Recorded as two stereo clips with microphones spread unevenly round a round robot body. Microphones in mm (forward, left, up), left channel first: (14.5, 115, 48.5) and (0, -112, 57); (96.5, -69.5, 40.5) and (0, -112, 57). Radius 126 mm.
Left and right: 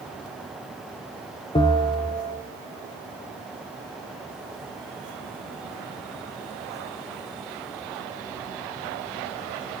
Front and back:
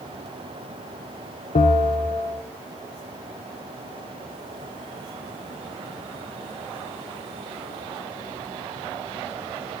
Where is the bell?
15° left, 0.8 m.